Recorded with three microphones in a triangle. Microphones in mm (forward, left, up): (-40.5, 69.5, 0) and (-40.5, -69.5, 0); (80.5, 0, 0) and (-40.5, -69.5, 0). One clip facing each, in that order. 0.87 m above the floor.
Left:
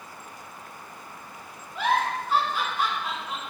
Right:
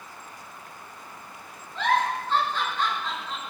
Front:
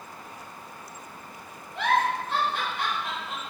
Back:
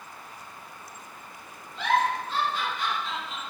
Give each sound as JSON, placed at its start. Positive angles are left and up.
{"t": 1.8, "sound": "a giggle", "azimuth_deg": 10, "distance_m": 4.5}